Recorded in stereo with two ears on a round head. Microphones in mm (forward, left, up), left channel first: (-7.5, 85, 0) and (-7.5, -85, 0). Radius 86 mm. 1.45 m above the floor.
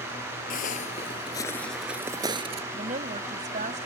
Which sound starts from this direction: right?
A woman speaking, at 2.7 s.